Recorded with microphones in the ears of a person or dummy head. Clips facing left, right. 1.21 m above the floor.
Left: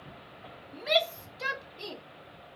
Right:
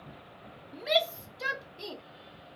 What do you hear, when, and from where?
0.7 s a shout: centre (ahead or behind)